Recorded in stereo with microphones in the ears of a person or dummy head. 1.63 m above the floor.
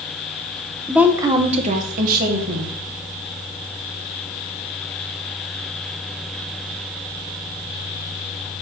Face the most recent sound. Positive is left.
turn(degrees=-55)  # may be behind; listen again after turning